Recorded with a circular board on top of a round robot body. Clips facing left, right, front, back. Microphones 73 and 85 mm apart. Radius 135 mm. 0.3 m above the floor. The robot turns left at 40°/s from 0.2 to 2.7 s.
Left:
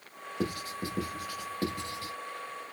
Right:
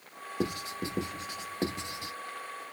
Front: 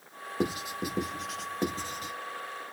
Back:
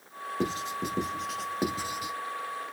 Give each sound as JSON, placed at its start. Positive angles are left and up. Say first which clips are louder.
{"t": 0.4, "sound": "writing", "louder": "right 1 dB, even", "azimuth_deg": -55, "distance_m": 1.2}